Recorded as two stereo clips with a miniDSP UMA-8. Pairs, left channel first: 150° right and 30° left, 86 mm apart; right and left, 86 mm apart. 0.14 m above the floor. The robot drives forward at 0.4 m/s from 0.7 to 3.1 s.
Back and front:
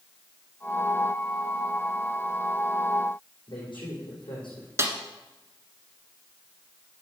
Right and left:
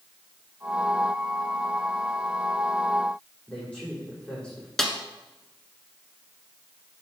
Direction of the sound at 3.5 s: 170° right.